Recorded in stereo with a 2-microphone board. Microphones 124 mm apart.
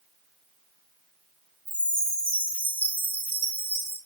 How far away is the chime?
About 0.7 m.